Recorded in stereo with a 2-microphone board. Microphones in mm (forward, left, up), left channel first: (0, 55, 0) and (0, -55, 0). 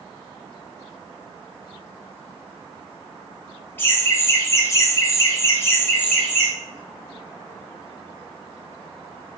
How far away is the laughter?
About 1.1 m.